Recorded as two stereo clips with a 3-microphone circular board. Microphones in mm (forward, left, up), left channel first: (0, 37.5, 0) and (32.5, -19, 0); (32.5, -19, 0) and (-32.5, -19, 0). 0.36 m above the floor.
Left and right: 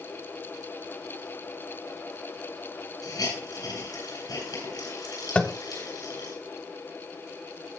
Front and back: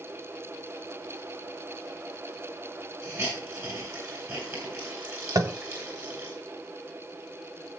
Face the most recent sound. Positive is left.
turn(degrees=-170)